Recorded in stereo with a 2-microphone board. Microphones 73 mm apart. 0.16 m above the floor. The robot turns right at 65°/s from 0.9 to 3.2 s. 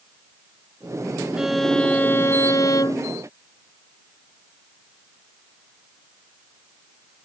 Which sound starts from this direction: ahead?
A violin, at 1.4 s.